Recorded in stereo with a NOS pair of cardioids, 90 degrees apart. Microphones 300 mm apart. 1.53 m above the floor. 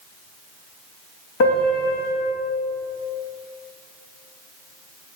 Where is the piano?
60° left, 1.7 m.